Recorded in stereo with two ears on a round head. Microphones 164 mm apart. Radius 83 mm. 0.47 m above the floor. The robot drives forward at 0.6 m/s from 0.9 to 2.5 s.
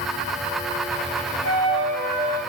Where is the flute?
65° right (ahead or behind), 1.1 m; by 2.4 s 45° right (ahead or behind), 1.4 m.